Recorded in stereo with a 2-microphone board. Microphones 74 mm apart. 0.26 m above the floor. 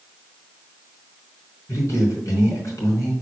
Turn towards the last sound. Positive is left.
turn(degrees=45)  # may be behind; listen again after turning